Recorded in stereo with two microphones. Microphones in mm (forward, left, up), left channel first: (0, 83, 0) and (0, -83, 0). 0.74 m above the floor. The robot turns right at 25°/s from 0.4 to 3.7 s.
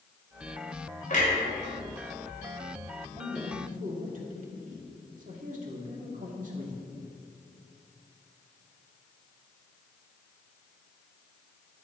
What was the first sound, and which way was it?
A clunk, 50° left (ahead or behind).